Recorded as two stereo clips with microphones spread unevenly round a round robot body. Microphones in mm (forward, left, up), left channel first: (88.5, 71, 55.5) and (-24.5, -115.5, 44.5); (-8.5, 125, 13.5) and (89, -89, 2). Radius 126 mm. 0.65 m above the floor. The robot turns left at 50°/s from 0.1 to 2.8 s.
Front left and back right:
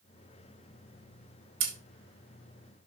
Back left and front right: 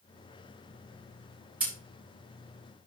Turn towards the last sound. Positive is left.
turn(degrees=150)